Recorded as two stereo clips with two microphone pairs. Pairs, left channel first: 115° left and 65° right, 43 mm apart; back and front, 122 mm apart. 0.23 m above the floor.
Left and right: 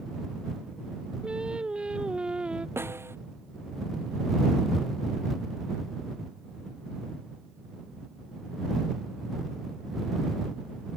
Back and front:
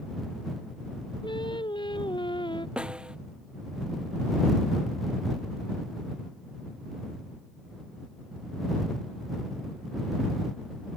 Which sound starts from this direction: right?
A snare drum, at 2.8 s.